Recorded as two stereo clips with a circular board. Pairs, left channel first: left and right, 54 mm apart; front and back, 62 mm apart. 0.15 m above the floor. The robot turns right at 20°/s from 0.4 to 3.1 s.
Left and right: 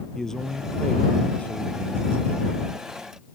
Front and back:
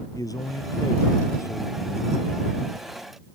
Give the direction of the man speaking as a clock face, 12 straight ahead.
12 o'clock.